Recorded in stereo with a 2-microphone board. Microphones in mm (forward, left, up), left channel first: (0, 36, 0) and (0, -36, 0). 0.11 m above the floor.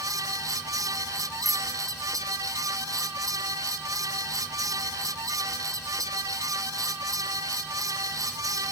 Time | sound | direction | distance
1.4 | a bicycle bell | 25° right (ahead or behind) | ?